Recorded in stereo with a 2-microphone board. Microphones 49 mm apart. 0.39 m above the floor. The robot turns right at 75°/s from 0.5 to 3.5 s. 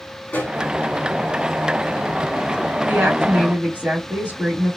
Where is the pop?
45° left (ahead or behind), 3.5 m; by 0.6 s 35° left (ahead or behind), 3.5 m.